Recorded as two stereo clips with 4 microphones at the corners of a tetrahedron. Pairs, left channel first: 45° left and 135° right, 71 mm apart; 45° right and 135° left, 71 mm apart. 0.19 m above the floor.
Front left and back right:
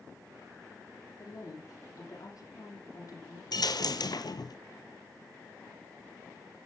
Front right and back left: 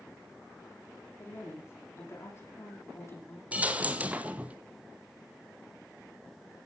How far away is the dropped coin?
About 1.2 m.